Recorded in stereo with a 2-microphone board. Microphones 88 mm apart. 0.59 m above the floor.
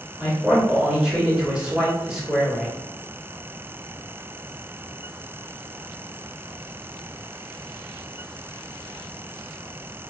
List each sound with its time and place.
0.2 s a man speaking: 10° right (ahead or behind), 1.6 m